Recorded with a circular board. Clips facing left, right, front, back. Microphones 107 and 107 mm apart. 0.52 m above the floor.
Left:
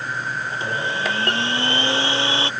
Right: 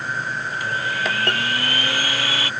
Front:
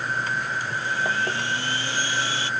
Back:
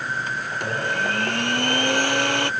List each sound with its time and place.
0.5 s a blender: 155° left